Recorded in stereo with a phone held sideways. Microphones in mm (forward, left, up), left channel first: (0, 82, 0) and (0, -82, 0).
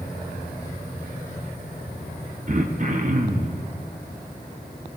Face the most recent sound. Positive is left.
turn(degrees=-50)  # may be behind; listen again after turning